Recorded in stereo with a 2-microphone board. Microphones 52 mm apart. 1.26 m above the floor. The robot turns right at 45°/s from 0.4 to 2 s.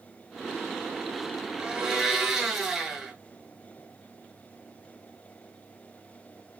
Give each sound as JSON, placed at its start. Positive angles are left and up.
{"t": 1.6, "sound": "a blender", "side_deg": -20, "distance_m": 0.7}